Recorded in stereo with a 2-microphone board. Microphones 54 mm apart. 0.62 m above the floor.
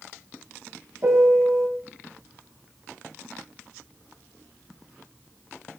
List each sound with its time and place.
1.0 s a piano: 60° right (ahead or behind), 3.5 m